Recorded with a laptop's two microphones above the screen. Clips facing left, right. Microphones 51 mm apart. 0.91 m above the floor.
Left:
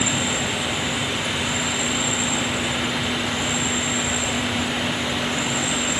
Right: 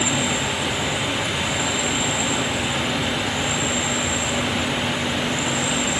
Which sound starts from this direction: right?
An insect, at 0.0 s.